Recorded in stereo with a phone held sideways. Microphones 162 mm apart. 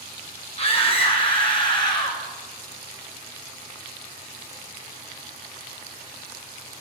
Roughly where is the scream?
Left.